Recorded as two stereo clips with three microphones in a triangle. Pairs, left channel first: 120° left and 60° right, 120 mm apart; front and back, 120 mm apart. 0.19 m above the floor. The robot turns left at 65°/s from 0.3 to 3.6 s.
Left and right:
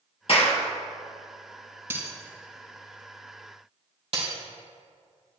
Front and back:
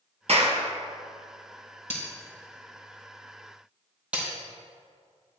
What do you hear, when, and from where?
0.3 s a clap: 155° left, 2.5 m; by 0.6 s 135° left, 2.5 m
1.9 s breaking glass: 10° left, 3.5 m; by 4.3 s 100° right, 3.5 m